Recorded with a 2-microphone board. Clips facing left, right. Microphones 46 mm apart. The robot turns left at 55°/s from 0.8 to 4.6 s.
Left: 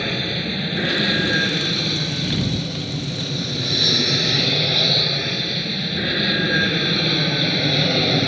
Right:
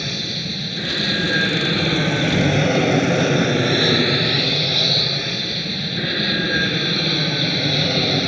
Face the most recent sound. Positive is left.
turn(degrees=180)